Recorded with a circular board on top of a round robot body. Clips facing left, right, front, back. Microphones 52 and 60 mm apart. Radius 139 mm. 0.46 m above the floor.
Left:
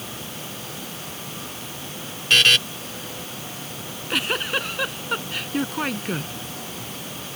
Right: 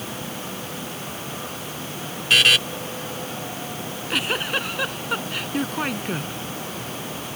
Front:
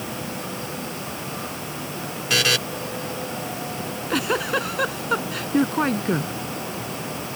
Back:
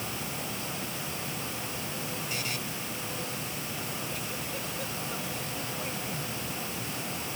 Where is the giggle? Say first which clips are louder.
Even, front 10 dB; straight ahead.